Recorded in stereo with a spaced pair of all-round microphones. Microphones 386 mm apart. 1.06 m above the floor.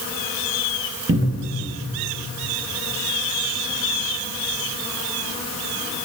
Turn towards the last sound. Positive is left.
turn(degrees=-30)  # may be behind; listen again after turning